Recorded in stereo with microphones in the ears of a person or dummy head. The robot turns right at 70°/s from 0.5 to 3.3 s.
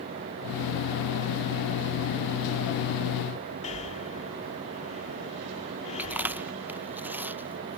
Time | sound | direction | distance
3.6 | breathing | 35° left (ahead or behind) | ?
6.0 | chewing | 5° right (ahead or behind) | ?